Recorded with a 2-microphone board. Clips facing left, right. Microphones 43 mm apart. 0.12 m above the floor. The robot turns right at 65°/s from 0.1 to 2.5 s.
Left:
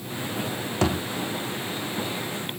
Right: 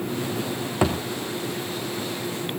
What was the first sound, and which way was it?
A thud, 15° right (ahead or behind).